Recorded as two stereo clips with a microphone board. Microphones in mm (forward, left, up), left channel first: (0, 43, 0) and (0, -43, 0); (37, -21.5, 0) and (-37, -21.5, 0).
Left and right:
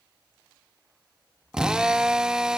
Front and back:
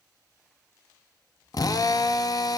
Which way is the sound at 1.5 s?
10° right.